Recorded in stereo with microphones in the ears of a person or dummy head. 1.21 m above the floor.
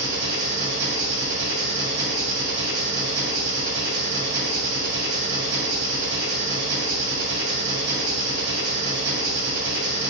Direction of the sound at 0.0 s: 65° right (ahead or behind).